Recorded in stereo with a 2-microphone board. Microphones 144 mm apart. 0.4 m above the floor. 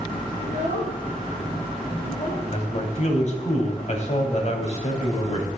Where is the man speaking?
50° left (ahead or behind), 2.5 m.